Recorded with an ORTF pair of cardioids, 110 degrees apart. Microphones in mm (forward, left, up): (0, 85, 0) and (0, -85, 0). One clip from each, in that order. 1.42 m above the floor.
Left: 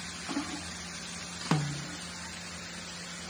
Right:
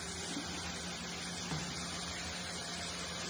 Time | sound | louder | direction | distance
1.5 | a snare drum | left 7 dB | 65° left | 0.5 m